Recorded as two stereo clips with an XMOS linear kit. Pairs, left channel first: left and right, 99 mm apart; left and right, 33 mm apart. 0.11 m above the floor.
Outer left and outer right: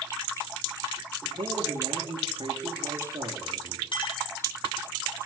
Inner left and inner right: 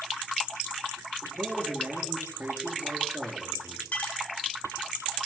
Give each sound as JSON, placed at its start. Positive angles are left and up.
{"t": 1.4, "sound": "a man speaking", "side_deg": -55, "distance_m": 7.0}
{"t": 3.9, "sound": "a clink", "side_deg": 55, "distance_m": 2.5}